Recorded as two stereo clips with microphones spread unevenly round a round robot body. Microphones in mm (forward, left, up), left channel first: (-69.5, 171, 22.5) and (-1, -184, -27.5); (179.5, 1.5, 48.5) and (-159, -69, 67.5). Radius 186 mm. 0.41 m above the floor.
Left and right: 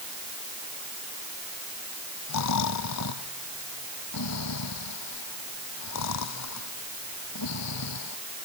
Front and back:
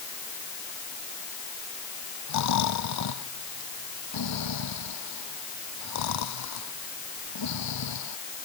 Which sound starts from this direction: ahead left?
Snoring, at 2.3 s.